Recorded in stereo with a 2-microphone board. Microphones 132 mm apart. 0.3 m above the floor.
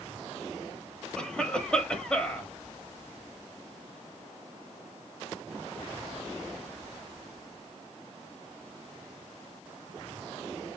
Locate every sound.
1.2 s a cough: 5° left (ahead or behind), 1.1 m